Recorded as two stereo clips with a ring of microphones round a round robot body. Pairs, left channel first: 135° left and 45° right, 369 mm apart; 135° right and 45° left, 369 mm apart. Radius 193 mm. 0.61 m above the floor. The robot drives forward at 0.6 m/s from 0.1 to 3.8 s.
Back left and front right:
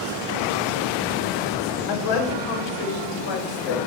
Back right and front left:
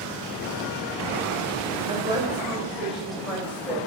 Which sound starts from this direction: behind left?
A woman speaking, at 1.9 s.